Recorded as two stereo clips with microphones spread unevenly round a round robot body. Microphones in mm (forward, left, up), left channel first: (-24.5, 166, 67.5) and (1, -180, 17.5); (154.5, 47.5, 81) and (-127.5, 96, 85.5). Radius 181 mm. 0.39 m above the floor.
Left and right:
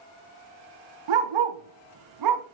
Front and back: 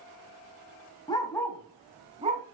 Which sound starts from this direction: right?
A dog barking, at 1.1 s.